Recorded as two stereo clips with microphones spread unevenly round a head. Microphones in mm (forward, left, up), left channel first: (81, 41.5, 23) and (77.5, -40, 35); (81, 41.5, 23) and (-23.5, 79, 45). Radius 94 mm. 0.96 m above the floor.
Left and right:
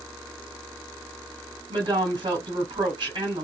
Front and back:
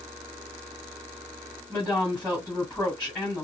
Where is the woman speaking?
110° right, 1.5 m.